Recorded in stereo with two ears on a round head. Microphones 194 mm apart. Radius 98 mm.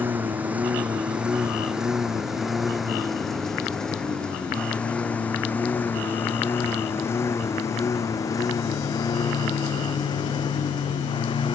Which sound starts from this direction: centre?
A lawn mower, at 0.0 s.